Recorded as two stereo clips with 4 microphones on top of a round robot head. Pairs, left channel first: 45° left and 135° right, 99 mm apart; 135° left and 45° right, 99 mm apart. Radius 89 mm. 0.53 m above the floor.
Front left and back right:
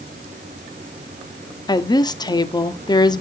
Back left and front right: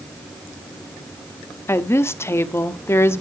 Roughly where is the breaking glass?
No breaking glass in this recording.